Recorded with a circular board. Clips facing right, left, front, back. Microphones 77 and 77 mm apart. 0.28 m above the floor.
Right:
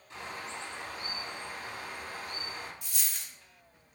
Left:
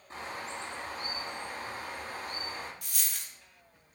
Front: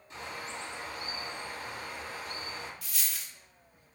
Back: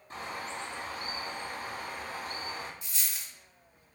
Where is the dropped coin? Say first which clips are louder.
Even, front 1 dB; 115° left, 0.6 m.